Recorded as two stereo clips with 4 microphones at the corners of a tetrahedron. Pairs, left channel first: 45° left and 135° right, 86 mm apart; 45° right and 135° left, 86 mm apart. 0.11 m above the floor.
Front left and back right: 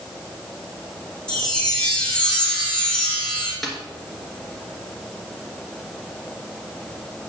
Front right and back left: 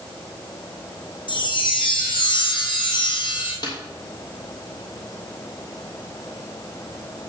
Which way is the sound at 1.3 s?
35° right.